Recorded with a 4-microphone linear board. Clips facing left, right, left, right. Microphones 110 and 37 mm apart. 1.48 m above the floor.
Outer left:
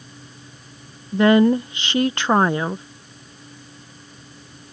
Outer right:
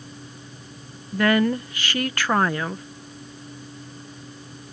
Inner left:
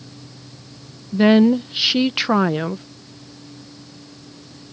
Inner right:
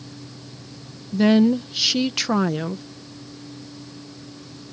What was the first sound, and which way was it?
A woman speaking, 25° left (ahead or behind).